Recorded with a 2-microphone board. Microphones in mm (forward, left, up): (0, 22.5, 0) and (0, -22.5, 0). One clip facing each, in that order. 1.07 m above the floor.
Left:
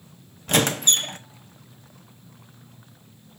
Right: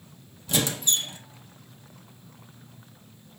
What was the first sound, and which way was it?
A squeak, 60° left (ahead or behind).